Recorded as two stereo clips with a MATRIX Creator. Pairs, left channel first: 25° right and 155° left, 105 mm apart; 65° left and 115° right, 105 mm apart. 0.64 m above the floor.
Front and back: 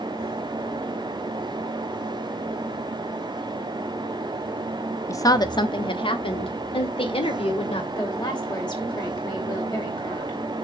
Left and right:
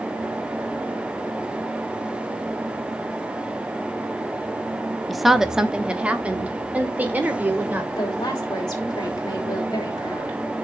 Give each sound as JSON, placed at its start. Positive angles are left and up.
{"t": 5.1, "sound": "a woman speaking", "azimuth_deg": -20, "distance_m": 0.6}
{"t": 8.0, "sound": "a woman speaking", "azimuth_deg": 20, "distance_m": 3.0}